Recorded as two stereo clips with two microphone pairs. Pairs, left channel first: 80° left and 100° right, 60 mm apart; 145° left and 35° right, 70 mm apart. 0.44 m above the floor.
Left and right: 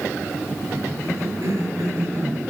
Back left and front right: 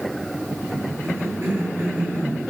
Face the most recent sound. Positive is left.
turn(degrees=-95)